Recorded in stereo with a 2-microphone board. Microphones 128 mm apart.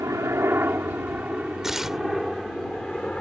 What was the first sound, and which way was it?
A helicopter, 25° right (ahead or behind).